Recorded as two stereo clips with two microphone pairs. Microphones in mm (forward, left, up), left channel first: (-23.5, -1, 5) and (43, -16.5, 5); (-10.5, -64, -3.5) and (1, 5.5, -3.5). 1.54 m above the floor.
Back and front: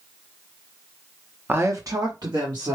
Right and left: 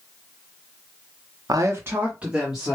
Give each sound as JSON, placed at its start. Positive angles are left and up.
{"t": 1.5, "sound": "a woman speaking", "azimuth_deg": 50, "distance_m": 0.7}